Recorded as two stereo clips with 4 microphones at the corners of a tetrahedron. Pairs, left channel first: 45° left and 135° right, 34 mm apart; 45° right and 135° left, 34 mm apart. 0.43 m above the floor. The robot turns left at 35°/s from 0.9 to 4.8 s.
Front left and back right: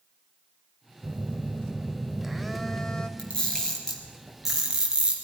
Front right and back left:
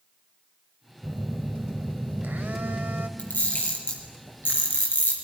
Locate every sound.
1.0 s a phone buzzing: 175° right, 0.9 m; by 3.1 s 115° left, 0.9 m
3.2 s a camera shutter: 10° right, 3 m; by 5.2 s 65° right, 3 m